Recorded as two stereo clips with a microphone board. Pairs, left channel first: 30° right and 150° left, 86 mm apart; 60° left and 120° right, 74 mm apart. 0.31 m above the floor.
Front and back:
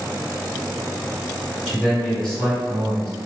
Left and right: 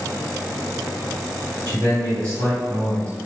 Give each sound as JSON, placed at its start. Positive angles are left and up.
{"t": 1.7, "sound": "a man speaking", "azimuth_deg": -105, "distance_m": 1.9}